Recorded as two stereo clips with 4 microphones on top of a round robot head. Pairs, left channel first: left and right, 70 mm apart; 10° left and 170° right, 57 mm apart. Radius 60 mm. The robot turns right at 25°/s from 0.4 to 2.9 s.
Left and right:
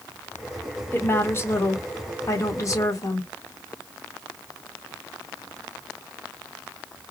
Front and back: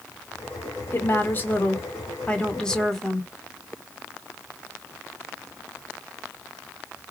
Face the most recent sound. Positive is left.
turn(degrees=90)